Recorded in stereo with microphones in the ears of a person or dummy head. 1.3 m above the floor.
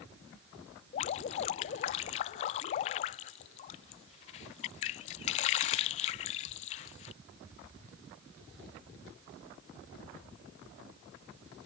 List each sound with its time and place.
0.9 s dripping: 35° left (ahead or behind)